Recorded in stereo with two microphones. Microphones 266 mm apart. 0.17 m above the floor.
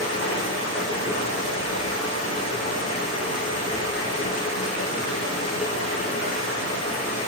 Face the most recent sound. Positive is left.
turn(degrees=70)  # may be behind; listen again after turning